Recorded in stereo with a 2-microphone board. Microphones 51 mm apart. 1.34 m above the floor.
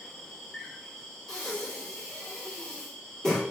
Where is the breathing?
15° left (ahead or behind), 1.6 m.